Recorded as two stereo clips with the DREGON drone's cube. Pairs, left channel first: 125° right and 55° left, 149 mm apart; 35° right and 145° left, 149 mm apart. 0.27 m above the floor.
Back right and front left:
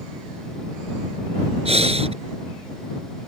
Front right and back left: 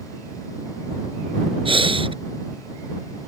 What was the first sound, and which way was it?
Breathing, 95° left.